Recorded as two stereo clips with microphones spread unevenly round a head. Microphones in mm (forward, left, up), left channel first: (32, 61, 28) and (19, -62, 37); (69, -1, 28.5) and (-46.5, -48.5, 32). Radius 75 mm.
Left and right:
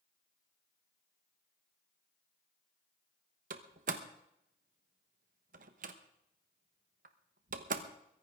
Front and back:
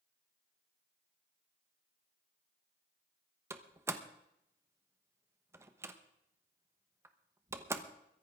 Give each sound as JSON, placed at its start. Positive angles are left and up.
{"t": 3.5, "sound": "a door slam", "azimuth_deg": -90, "distance_m": 1.1}